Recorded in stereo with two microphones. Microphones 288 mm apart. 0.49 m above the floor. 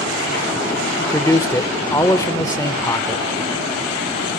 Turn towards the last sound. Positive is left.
turn(degrees=10)  # may be behind; listen again after turning